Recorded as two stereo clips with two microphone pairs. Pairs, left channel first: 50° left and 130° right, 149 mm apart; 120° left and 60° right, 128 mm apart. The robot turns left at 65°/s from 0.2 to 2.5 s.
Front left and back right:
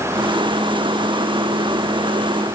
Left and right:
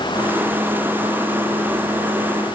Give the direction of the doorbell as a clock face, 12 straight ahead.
No doorbell in this recording.